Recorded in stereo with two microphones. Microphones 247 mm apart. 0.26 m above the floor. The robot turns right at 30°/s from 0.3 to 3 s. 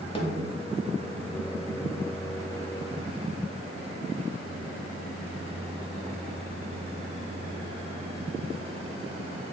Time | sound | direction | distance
0.1 | a snare drum | 20° left (ahead or behind) | 0.8 m